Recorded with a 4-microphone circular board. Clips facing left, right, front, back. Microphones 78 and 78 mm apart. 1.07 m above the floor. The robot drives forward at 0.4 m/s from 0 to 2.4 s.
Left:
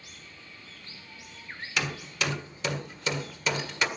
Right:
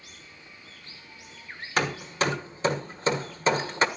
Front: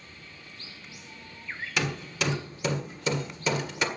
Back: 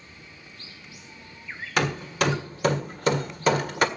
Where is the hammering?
140° right, 1.5 m; by 3.9 s 145° right, 1.7 m.